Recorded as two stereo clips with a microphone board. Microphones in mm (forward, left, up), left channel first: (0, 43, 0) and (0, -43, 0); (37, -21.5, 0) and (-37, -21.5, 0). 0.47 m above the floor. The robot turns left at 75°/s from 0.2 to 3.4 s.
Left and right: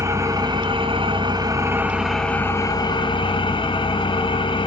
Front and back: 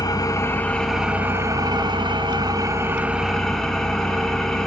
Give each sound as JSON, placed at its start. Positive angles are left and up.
{"t": 0.0, "sound": "an engine running", "azimuth_deg": -35, "distance_m": 1.2}